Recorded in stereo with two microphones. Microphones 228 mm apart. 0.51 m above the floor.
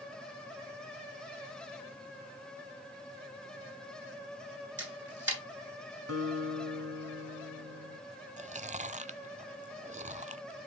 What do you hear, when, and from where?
4.8 s a camera shutter: 55° right (ahead or behind), 7.5 m
6.1 s a guitar: 85° right, 3 m
8.4 s chewing: 30° right (ahead or behind), 0.6 m